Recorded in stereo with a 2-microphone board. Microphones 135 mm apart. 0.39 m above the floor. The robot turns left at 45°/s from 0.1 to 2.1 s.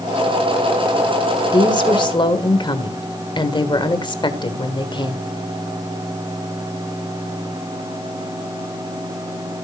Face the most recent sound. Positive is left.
turn(degrees=35)  # may be behind; listen again after turning